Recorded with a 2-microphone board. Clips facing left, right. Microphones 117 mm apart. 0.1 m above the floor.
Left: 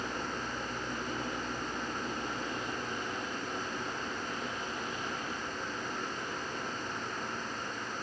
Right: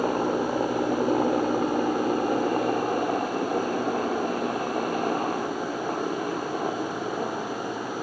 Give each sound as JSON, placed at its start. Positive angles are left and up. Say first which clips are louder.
{"t": 0.0, "sound": "a helicopter", "louder": "right 14 dB", "side_deg": -60}